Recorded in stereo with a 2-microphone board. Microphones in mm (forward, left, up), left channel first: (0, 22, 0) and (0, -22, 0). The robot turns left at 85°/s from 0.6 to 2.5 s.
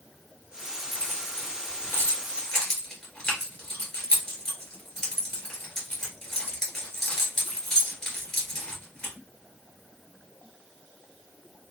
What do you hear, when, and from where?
0.9 s keys jangling: 30° left (ahead or behind), 2.5 m; by 9.1 s 10° left (ahead or behind), 2.5 m